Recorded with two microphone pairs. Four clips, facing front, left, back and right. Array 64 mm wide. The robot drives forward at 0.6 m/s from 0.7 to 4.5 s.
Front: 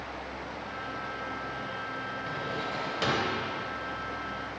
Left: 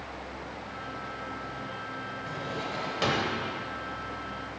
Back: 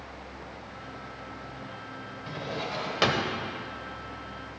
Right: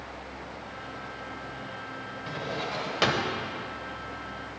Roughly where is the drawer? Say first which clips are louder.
Right 3 dB, back 2 dB; right.